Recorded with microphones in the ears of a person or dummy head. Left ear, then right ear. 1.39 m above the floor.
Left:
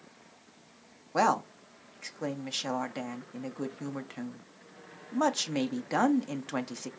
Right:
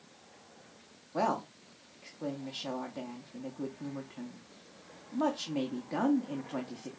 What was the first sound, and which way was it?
A woman speaking, 75° left (ahead or behind).